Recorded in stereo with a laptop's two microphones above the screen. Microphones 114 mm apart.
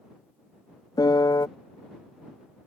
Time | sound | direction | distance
1.0 | a piano | 35° left (ahead or behind) | ?